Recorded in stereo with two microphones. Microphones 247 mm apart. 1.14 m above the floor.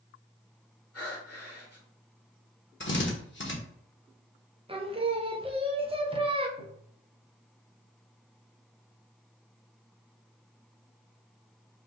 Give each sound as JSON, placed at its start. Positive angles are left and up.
{"t": 0.9, "sound": "breathing", "side_deg": 65, "distance_m": 1.8}
{"t": 2.8, "sound": "a drill", "side_deg": 50, "distance_m": 1.0}
{"t": 4.7, "sound": "singing", "side_deg": -20, "distance_m": 0.6}
{"t": 6.6, "sound": "tapping", "side_deg": -50, "distance_m": 0.8}